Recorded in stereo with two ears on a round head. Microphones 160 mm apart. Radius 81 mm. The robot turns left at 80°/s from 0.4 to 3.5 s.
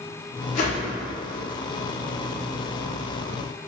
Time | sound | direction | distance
0.6 | a whoosh | 40° left (ahead or behind) | 0.7 m